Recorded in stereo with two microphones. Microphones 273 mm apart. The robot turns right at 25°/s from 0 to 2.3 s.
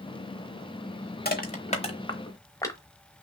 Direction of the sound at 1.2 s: 35° left (ahead or behind).